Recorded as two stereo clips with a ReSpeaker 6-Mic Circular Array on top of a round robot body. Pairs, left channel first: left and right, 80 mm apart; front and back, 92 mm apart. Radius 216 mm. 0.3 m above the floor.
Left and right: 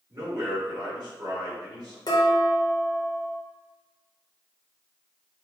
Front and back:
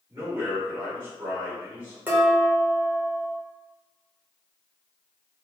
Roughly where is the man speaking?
Behind right.